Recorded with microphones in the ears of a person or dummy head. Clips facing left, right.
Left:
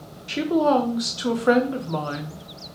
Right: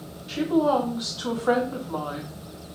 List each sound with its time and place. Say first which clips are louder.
0.3 s a woman speaking: left 2 dB; 30° left (ahead or behind), 0.6 m